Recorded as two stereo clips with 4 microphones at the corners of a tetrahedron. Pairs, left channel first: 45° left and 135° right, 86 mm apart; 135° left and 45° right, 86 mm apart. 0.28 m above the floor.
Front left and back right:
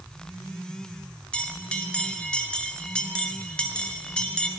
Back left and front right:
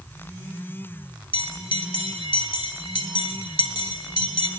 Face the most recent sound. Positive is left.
turn(degrees=125)